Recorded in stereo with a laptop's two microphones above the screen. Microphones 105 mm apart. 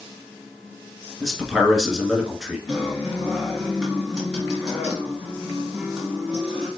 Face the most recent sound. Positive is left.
turn(degrees=-5)  # may be behind; listen again after turning